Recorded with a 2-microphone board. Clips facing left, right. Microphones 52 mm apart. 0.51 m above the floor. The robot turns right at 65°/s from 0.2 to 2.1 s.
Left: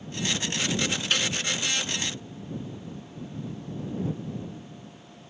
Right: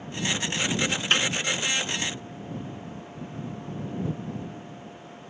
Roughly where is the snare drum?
Right.